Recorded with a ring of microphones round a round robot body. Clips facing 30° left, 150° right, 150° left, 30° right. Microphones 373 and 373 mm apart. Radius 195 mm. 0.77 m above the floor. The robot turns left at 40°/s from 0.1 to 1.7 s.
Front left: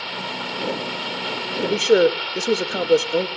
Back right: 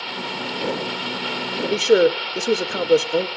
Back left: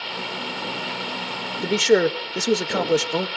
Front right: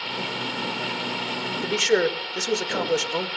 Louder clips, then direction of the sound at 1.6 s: Even, back left 4 dB; 125° left.